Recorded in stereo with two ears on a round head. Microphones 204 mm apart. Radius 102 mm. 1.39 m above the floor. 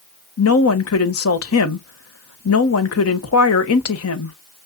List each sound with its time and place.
0.4 s a woman speaking: 70° left (ahead or behind), 1.5 m